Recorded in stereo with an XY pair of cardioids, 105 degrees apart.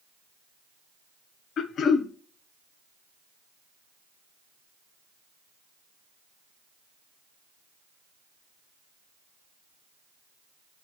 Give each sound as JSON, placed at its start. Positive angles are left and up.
{"t": 1.6, "sound": "throat clearing", "azimuth_deg": 65, "distance_m": 1.0}